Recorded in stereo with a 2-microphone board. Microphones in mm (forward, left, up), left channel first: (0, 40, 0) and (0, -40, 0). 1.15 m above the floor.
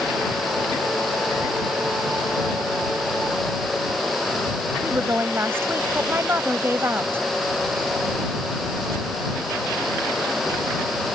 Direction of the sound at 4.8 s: 30° right (ahead or behind).